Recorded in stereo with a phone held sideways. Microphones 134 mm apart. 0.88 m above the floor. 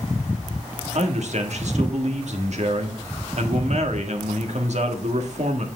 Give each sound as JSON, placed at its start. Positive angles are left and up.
{"t": 0.9, "sound": "a man speaking", "side_deg": -60, "distance_m": 1.6}